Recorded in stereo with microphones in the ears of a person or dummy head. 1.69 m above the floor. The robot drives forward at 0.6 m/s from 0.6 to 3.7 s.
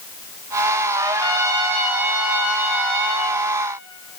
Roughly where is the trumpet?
Right.